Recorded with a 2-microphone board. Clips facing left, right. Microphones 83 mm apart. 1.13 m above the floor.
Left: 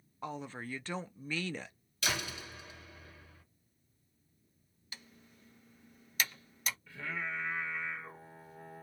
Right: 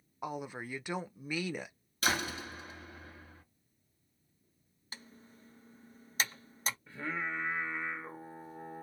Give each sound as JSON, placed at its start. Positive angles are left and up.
{"t": 0.2, "sound": "a woman speaking", "side_deg": -15, "distance_m": 0.5}
{"t": 2.0, "sound": "a door slam", "side_deg": -40, "distance_m": 1.9}
{"t": 4.9, "sound": "typing on a keyboard", "side_deg": -35, "distance_m": 0.7}
{"t": 6.9, "sound": "singing", "side_deg": -30, "distance_m": 1.1}